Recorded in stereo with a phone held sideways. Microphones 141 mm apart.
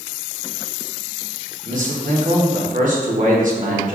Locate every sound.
1.6 s a man speaking: 70° right (ahead or behind), 0.9 m